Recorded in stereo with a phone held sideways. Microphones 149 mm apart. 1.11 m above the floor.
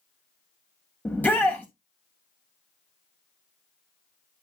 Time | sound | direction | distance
1.1 | a shout | 10° left (ahead or behind) | 0.8 m